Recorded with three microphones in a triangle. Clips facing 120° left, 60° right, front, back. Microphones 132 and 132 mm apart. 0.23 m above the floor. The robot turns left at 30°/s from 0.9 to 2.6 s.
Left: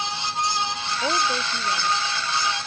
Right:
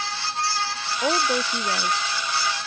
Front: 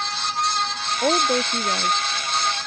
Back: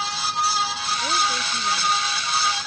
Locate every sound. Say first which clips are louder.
1.0 s a woman speaking: right 2 dB, front 7 dB; 15° left; by 2.0 s 15° right